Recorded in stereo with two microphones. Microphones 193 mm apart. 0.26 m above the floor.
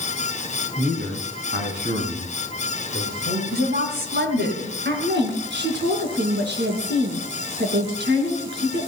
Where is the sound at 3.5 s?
55° right (ahead or behind), 2.5 m.